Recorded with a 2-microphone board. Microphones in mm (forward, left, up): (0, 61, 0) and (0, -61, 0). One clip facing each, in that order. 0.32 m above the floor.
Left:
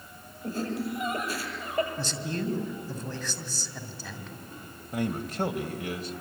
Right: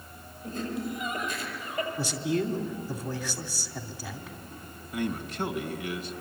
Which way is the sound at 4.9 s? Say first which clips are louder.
Left 1 dB; 45° left (ahead or behind).